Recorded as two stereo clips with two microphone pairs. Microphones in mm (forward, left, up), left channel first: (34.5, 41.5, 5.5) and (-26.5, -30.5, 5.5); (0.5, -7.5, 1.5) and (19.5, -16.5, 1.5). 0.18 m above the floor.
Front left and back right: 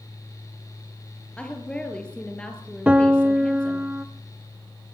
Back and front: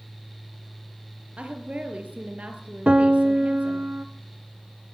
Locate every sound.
1.4 s a woman speaking: 30° right, 4.5 m
2.9 s a piano: 55° right, 1.8 m